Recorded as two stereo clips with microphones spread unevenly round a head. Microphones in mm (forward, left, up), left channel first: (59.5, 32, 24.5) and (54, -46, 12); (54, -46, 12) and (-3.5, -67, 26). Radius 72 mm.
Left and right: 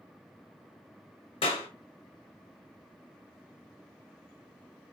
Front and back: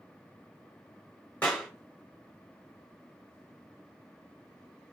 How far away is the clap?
About 1.0 m.